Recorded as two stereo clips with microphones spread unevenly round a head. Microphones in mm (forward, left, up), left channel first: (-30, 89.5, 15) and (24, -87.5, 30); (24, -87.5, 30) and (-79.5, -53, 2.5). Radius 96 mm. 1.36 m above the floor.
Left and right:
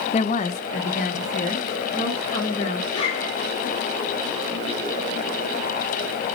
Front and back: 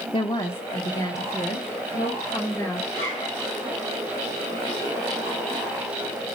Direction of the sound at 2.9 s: 45° left.